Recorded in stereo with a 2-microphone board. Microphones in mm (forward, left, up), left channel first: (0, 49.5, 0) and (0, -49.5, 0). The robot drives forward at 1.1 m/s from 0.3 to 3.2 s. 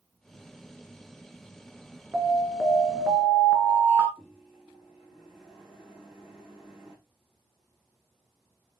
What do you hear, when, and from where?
2.1 s an alarm: 20° right (ahead or behind), 2 m
4.2 s a microwave: centre (ahead or behind), 5 m